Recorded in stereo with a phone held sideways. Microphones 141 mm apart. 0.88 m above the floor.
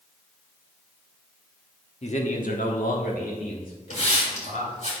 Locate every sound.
2.0 s a man speaking: 50° left (ahead or behind), 1.2 m; by 4.8 s 70° left (ahead or behind), 3.5 m
3.9 s a hiss: 50° left (ahead or behind), 3 m